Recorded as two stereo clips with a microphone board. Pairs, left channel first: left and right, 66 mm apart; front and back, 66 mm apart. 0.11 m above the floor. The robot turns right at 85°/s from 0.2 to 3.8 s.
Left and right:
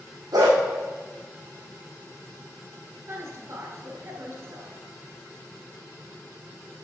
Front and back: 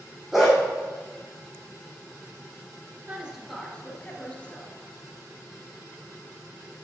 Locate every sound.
0.3 s a dog barking: 95° right, 3 m; by 0.6 s 75° right, 3 m
3.1 s a woman speaking: 125° right, 2 m; by 4.7 s 65° right, 2 m